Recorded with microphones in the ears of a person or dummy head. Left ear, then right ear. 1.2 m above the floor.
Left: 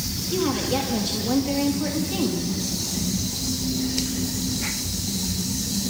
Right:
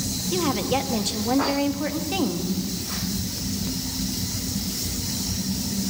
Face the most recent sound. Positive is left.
turn(degrees=-35)  # may be behind; listen again after turning